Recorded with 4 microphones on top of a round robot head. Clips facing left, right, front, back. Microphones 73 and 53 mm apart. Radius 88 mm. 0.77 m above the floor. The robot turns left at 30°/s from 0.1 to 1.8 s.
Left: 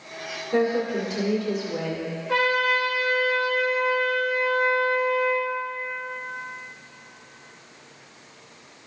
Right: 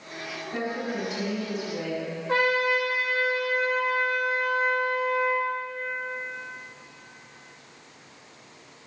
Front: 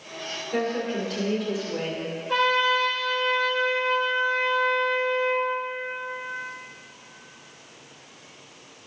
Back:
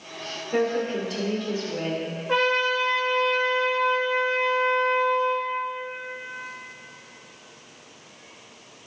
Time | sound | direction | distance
0.5 | a woman speaking | 110° left | 2.5 m
2.3 | a trumpet | 140° right | 1.7 m